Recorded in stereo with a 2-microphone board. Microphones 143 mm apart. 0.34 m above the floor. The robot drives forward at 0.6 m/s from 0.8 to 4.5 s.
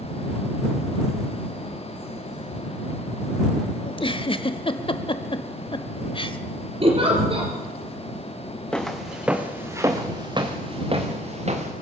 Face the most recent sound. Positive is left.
turn(degrees=-50)  # may be behind; listen again after turning